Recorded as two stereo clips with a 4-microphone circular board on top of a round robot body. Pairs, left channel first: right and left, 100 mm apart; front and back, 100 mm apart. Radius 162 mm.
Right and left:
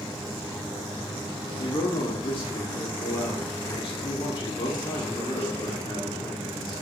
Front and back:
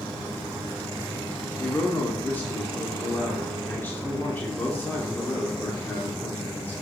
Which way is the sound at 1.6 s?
70° right.